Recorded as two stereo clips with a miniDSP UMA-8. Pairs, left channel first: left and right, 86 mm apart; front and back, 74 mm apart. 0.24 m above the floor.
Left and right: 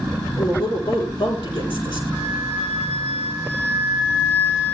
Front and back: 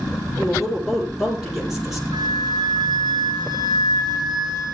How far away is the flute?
About 9 m.